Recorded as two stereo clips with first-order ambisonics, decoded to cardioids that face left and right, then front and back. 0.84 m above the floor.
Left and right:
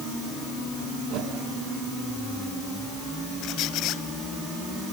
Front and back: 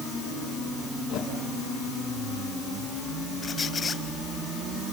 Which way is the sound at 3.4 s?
70° left.